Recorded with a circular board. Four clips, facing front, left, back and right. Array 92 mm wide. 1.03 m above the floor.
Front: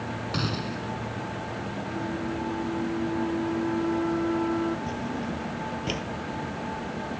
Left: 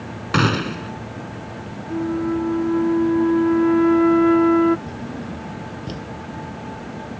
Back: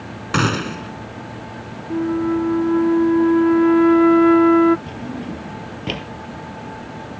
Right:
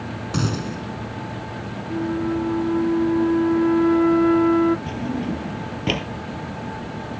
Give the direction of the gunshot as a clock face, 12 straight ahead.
8 o'clock.